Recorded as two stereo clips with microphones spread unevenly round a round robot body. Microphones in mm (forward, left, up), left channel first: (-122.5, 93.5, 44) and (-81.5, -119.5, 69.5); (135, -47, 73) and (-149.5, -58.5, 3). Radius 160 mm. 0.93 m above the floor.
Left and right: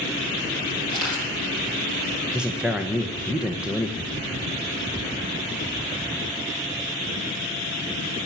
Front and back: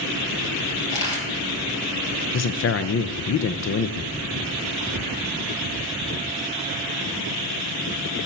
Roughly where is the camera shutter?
Right.